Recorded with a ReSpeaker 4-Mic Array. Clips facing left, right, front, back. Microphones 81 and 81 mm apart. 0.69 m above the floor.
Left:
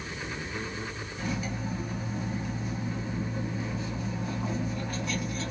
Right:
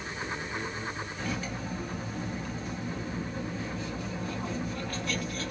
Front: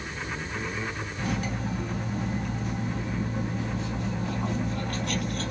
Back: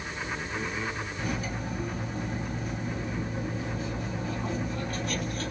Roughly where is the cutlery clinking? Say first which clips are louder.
Left 4 dB, front 5 dB; ahead.